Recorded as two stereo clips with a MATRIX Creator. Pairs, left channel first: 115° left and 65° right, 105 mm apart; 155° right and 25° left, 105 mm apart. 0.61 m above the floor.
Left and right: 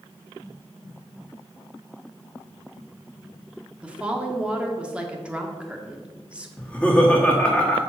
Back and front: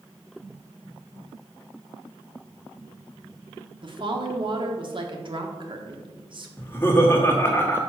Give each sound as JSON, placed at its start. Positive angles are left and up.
{"t": 3.8, "sound": "a woman speaking", "azimuth_deg": 10, "distance_m": 1.0}
{"t": 6.6, "sound": "laughter", "azimuth_deg": 175, "distance_m": 1.2}